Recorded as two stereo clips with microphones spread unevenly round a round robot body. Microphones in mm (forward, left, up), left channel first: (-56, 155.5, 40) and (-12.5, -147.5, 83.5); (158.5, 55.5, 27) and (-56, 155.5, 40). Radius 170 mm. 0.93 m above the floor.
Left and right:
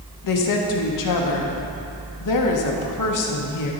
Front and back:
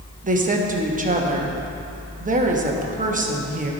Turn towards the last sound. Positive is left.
turn(degrees=95)